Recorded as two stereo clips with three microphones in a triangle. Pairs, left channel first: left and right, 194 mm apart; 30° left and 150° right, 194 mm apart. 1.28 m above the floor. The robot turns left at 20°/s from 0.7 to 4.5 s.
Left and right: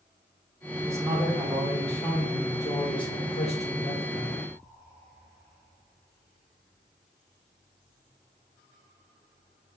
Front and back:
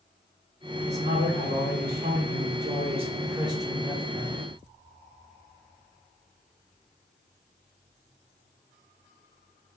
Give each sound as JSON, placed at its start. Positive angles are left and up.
{"t": 0.8, "sound": "a man speaking", "azimuth_deg": -165, "distance_m": 1.2}